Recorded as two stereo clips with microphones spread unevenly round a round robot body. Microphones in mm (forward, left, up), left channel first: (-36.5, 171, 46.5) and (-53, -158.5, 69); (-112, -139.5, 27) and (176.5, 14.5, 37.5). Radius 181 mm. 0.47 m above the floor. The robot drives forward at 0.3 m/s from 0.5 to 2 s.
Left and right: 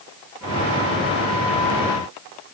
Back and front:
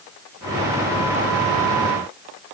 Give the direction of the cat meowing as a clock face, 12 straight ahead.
No cat meowing in this recording.